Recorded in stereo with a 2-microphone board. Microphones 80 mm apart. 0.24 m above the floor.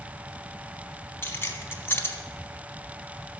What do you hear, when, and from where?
1.2 s keys jangling: 30° left (ahead or behind), 1.3 m